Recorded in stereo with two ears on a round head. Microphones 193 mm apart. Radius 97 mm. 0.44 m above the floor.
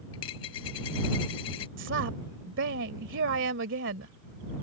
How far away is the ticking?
I don't hear ticking.